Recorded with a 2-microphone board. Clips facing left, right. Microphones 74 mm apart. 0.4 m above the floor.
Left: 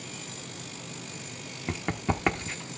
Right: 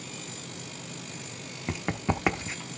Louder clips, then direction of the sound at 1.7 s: Even; 5° right (ahead or behind).